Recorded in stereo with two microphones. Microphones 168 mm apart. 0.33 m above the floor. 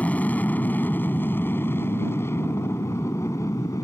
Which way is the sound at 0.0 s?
10° left (ahead or behind).